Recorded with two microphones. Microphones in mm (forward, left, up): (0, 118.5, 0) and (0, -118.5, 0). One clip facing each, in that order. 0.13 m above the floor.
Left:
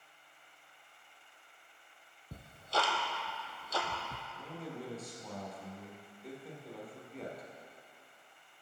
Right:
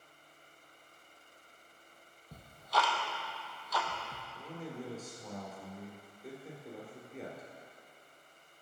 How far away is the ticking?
About 0.7 m.